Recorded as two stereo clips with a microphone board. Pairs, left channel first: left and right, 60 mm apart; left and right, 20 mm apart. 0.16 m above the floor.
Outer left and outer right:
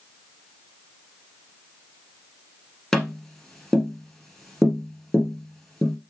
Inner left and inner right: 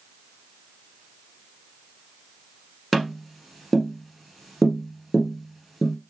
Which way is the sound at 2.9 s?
5° left (ahead or behind).